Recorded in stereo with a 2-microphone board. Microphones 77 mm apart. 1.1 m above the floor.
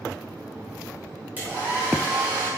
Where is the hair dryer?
20° right (ahead or behind), 3.5 m.